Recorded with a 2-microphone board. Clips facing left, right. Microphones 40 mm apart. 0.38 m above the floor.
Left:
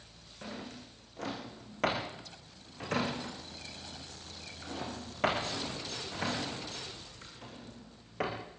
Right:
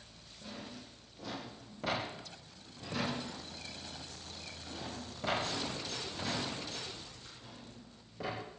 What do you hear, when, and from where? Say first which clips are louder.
0.4 s a drawer: left 3 dB; 90° left, 7 m